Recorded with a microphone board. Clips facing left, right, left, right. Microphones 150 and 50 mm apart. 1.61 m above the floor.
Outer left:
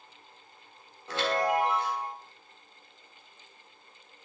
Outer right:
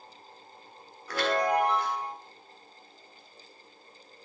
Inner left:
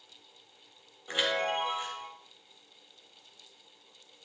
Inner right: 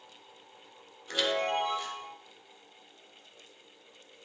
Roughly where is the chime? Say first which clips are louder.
Outer right 1 dB, even; left.